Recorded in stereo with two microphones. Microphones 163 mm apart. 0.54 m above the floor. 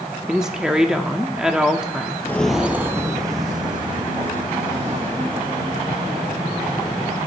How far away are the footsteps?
About 0.6 m.